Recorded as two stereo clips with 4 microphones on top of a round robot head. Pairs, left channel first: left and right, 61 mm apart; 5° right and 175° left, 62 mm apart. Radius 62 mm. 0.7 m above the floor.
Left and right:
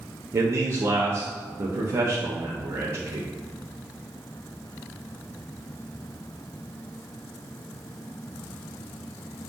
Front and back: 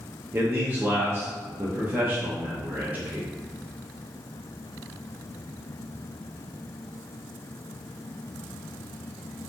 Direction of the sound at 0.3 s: 125° right.